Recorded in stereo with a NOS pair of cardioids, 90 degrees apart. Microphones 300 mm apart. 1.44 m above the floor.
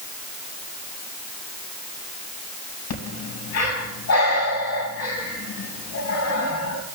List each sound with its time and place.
2.9 s breathing: 60° left, 4 m